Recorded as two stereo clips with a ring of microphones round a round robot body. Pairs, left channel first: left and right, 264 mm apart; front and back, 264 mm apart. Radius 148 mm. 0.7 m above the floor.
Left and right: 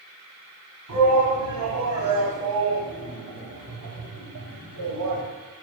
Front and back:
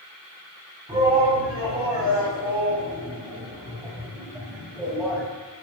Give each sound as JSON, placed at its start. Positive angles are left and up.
{"t": 0.9, "sound": "a shout", "azimuth_deg": -110, "distance_m": 5.5}